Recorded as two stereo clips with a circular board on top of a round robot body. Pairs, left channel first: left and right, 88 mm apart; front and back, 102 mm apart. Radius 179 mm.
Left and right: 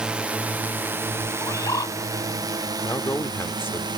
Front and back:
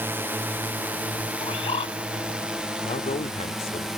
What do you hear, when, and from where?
0.0 s a drone: 155° right; by 4.0 s 95° right
1.4 s a bird: 35° left
2.8 s a man speaking: 25° left